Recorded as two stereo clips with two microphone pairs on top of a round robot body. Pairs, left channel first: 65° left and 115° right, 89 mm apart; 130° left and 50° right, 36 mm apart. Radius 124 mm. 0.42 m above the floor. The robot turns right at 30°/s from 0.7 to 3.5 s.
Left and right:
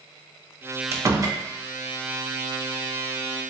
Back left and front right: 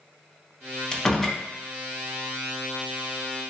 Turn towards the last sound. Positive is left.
turn(degrees=-85)